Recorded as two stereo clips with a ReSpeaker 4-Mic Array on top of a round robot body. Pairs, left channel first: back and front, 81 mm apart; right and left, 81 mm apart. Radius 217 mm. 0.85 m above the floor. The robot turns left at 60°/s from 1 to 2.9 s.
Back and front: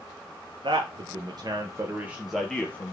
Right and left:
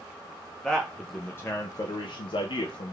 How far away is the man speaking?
About 0.6 m.